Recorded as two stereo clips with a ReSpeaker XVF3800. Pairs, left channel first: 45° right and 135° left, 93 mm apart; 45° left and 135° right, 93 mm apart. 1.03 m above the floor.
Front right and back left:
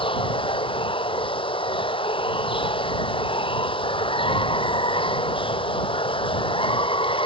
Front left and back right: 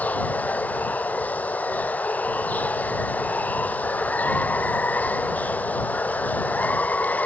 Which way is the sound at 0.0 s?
25° right.